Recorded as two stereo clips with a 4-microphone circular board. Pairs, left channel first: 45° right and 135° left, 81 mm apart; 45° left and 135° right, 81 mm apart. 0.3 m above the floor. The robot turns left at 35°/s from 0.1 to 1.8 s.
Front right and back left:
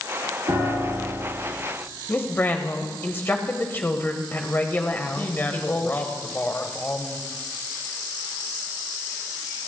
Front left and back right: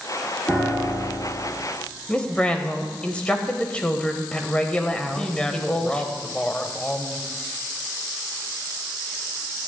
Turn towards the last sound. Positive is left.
turn(degrees=-20)